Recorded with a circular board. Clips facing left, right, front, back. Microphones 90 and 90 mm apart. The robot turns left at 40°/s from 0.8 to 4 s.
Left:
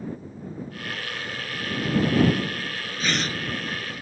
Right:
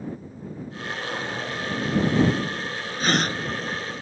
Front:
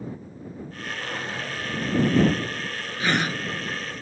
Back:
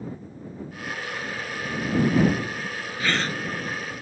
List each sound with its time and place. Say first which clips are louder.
1.0 s a drawer: right 4 dB, front 3 dB; 50° right; by 1.8 s 80° right
3.0 s a gasp: right 4 dB, front 2 dB; 60° right; by 3.4 s 75° right